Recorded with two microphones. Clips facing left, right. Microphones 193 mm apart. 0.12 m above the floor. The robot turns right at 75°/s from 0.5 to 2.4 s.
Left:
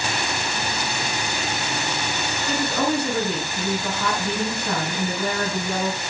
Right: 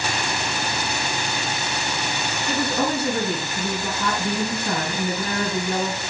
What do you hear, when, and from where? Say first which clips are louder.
2.5 s a woman speaking: even; 5° right (ahead or behind), 1.4 m